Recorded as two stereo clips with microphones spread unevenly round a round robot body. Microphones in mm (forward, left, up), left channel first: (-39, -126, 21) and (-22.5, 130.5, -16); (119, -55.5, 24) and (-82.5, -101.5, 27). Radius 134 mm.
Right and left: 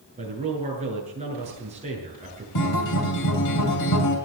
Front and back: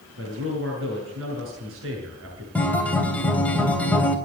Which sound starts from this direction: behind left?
A man speaking, at 0.2 s.